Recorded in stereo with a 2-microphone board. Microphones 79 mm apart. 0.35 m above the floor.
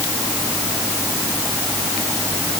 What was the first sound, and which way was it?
Only background noise.